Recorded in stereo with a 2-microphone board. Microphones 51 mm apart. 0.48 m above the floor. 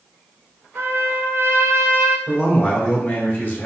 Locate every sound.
0.8 s a trumpet: 50° right (ahead or behind), 0.9 m
2.3 s a man speaking: 35° left (ahead or behind), 1.6 m